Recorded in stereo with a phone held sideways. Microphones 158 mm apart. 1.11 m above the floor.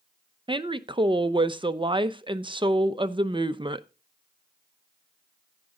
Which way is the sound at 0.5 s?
30° right (ahead or behind).